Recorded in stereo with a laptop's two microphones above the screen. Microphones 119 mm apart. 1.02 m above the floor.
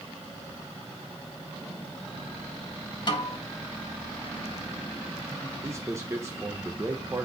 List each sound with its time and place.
3.1 s a snare drum: 40° left (ahead or behind), 3 m
5.6 s a man speaking: 25° right (ahead or behind), 0.8 m